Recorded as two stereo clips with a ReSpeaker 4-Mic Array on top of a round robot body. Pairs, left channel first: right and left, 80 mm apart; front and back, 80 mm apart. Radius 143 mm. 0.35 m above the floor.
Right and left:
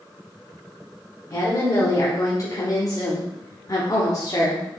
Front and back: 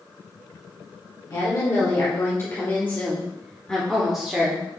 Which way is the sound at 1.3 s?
40° right.